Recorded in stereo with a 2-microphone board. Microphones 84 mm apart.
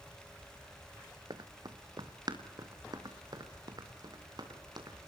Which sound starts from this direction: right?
Running footsteps, at 1.3 s.